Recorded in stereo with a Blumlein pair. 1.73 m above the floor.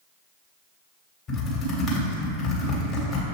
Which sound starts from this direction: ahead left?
Typing on a keyboard, at 1.3 s.